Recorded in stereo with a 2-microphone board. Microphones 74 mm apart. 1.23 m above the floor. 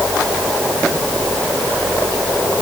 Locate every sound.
Only background noise.